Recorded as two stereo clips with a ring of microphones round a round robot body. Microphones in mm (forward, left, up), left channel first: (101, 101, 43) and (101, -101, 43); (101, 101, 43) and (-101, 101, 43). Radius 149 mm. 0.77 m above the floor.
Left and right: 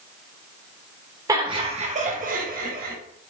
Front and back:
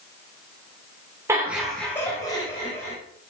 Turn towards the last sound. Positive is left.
turn(degrees=-55)